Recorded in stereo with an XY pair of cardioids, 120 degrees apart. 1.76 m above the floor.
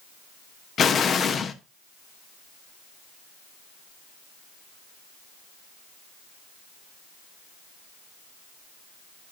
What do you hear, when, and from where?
0.8 s an explosion: 40° left, 1.0 m